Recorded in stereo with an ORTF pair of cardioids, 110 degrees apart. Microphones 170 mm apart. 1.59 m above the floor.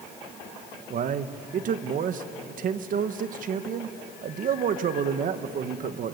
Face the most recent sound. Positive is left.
turn(degrees=-55)